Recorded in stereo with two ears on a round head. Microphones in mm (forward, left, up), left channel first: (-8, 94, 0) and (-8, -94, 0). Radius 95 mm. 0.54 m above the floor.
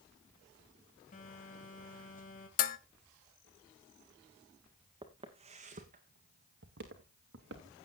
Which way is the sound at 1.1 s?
45° left (ahead or behind).